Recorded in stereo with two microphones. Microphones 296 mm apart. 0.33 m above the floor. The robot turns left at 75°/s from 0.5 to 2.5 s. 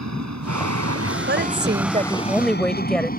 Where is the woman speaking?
90° right; by 3.1 s 175° left.